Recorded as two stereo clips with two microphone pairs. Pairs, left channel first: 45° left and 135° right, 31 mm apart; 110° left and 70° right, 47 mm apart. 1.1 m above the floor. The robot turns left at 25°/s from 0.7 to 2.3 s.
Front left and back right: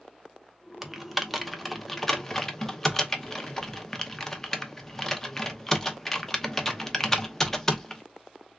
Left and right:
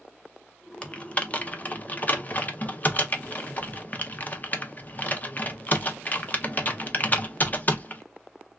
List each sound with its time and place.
0.8 s typing on a keyboard: 155° left, 0.6 m; by 8.0 s 120° left, 0.6 m